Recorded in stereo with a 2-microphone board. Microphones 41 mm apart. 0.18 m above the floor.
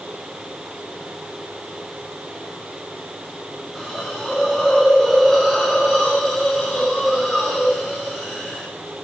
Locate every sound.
3.8 s a hiss: 10° left (ahead or behind), 7.5 m